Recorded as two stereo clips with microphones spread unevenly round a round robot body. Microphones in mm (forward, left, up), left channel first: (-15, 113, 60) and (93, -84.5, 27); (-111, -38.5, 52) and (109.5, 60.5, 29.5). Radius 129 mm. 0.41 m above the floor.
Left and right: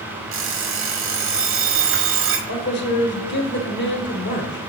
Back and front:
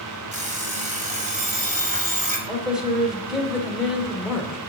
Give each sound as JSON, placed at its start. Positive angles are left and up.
{"t": 0.3, "sound": "an alarm clock", "azimuth_deg": -35, "distance_m": 1.3}
{"t": 2.5, "sound": "a man speaking", "azimuth_deg": 105, "distance_m": 1.3}